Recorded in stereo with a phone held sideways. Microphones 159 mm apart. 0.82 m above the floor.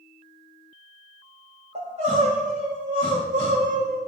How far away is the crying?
About 3.5 m.